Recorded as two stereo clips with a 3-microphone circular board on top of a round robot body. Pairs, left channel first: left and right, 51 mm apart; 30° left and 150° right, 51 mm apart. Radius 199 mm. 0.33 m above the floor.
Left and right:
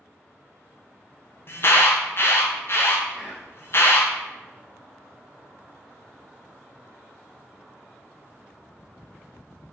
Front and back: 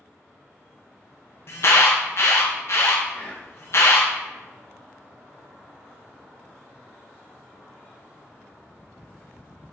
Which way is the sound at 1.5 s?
55° left.